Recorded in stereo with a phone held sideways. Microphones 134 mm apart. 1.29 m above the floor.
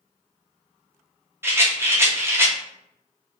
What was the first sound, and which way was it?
A rattle, 20° right (ahead or behind).